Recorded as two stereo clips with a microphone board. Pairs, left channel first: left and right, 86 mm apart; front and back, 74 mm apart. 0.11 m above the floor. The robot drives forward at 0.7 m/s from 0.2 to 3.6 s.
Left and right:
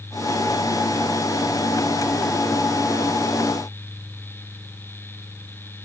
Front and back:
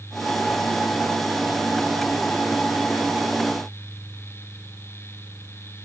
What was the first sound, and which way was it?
Only background noise.